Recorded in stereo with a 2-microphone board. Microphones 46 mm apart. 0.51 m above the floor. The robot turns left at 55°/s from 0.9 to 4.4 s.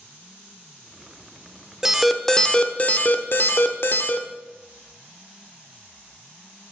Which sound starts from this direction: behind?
An alarm, at 1.8 s.